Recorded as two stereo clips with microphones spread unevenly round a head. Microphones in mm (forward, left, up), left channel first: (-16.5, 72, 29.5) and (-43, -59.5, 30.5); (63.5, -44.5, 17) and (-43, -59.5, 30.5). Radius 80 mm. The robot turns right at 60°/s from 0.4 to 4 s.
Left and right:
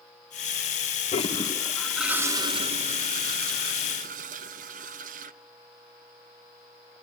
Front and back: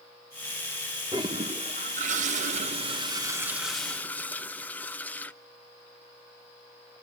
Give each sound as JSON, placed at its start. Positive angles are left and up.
{"t": 1.1, "sound": "a toilet flushing", "azimuth_deg": 120, "distance_m": 1.1}